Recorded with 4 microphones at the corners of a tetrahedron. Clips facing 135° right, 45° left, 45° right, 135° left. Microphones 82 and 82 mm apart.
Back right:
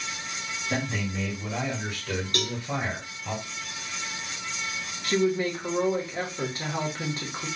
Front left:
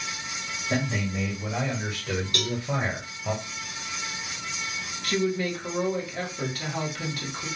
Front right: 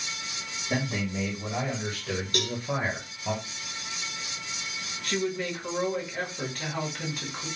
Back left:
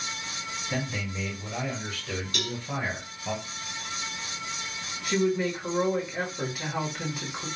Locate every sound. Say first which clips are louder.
0.7 s a man speaking: front left 2 dB, front right 4 dB; 30° right, 1.8 m; by 3.3 s 15° left, 1.0 m
2.3 s a cowbell: front left 1 dB, front right 5 dB; 80° right, 1.8 m
5.0 s a woman speaking: back right 2 dB, back left 4 dB; 155° right, 0.9 m